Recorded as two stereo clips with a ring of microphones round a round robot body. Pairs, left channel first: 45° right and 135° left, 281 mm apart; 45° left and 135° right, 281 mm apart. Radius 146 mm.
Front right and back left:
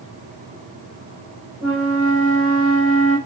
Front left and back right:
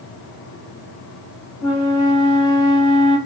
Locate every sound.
1.6 s a flute: 50° left, 1.9 m